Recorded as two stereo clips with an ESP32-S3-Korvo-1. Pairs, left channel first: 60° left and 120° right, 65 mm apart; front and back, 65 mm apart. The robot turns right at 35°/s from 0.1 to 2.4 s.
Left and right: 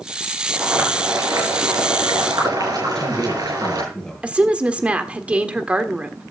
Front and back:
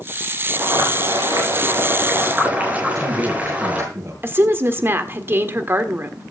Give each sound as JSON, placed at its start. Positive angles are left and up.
{"t": 0.5, "sound": "boiling", "azimuth_deg": 180, "distance_m": 6.5}
{"t": 2.9, "sound": "a man speaking", "azimuth_deg": 140, "distance_m": 7.0}
{"t": 4.2, "sound": "a woman speaking", "azimuth_deg": -175, "distance_m": 1.5}